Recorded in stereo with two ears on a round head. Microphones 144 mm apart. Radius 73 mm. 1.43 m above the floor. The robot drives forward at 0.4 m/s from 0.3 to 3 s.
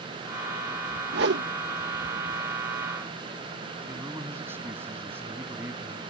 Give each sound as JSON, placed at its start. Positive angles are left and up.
{"t": 1.1, "sound": "a whoosh", "side_deg": -70}
{"t": 3.9, "sound": "a man speaking", "side_deg": -15}